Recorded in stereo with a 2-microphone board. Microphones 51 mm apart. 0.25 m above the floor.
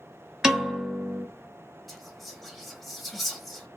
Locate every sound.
0.4 s a piano: 15° right (ahead or behind), 1.1 m
1.9 s whispering: centre (ahead or behind), 1.0 m